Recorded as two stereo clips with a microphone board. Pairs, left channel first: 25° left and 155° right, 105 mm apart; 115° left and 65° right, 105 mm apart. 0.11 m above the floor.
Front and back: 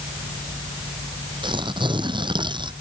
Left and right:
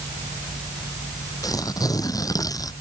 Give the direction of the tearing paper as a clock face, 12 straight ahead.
6 o'clock.